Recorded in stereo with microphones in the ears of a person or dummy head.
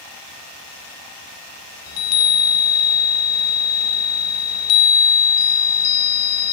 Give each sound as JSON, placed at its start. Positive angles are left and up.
{"t": 1.9, "sound": "a chime", "side_deg": 90, "distance_m": 1.4}